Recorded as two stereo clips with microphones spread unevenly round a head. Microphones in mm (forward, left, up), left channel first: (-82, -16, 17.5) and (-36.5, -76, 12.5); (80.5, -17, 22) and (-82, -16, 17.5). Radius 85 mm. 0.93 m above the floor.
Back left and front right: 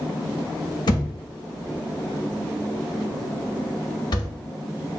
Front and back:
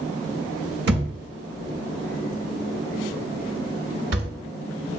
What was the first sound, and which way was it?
A thud, 150° left.